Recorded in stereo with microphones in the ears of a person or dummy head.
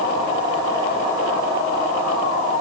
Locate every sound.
Only background noise.